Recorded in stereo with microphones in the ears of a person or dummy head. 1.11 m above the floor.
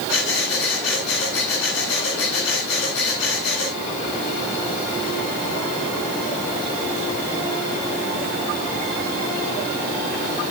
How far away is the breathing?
About 9.5 m.